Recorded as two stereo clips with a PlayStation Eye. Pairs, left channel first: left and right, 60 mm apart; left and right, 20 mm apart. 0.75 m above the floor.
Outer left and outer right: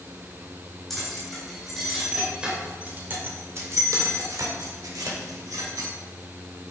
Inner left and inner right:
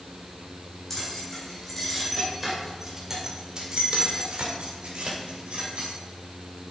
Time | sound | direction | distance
0.9 | keys jangling | 5° left (ahead or behind) | 3.5 m